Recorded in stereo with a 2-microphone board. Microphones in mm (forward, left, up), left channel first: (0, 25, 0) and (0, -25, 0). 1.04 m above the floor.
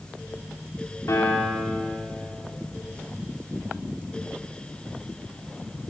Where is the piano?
75° left (ahead or behind), 3.5 m.